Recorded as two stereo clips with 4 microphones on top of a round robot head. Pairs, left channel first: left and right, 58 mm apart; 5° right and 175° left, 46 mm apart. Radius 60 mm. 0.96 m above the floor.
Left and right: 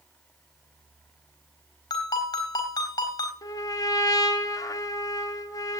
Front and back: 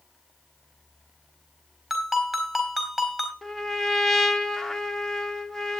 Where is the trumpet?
80° left, 1.9 m.